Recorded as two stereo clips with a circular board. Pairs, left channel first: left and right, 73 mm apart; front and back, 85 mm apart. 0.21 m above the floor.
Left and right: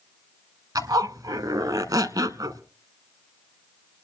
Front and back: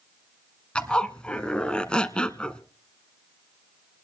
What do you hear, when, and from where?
0.8 s a zipper: 75° right, 0.9 m